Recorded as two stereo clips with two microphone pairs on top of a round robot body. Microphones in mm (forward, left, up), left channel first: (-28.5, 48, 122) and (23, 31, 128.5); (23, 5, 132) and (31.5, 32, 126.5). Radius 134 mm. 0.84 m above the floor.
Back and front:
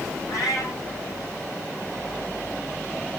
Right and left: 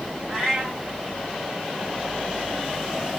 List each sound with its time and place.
0.3 s a cat meowing: 155° left, 4 m